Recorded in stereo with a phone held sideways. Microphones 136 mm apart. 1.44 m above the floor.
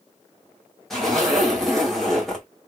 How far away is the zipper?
About 1.3 m.